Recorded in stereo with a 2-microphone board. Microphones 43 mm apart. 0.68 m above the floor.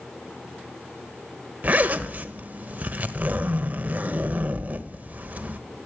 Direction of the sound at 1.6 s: 40° right (ahead or behind).